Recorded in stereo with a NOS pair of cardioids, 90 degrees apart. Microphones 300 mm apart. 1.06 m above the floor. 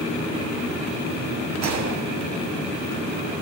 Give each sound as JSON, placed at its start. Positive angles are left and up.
{"t": 1.6, "sound": "a gunshot", "azimuth_deg": -65, "distance_m": 2.5}